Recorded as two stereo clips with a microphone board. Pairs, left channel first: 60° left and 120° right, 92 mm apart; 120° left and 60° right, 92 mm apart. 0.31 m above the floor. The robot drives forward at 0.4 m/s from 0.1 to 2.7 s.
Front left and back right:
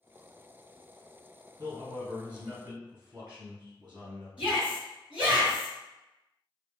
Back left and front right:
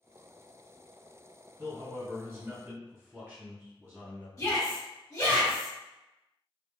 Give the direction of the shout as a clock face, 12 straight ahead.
6 o'clock.